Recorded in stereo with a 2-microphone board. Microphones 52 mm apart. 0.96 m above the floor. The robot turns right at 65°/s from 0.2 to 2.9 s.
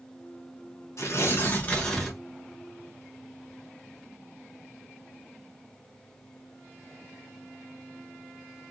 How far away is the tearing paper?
About 1.0 m.